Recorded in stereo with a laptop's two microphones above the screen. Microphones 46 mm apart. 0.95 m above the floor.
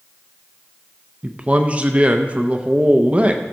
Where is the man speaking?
25° right (ahead or behind), 0.5 m.